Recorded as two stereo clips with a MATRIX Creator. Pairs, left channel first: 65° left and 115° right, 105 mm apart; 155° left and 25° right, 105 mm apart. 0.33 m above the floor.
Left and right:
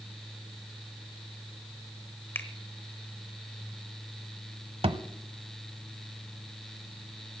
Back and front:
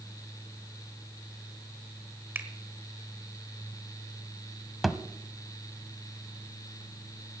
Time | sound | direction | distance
2.4 | a finger snap | 25° left | 1.4 m
4.8 | a thud | 110° right | 0.7 m